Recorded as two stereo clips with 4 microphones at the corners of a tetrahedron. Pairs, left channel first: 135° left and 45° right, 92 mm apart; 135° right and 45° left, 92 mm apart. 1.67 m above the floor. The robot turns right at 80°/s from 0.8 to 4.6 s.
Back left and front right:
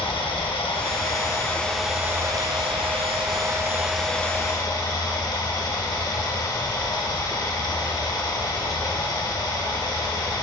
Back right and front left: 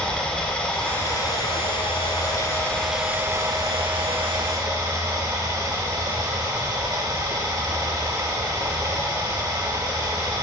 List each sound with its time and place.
0.0 s running water: 145° left, 1.0 m; by 10.4 s 90° left, 1.0 m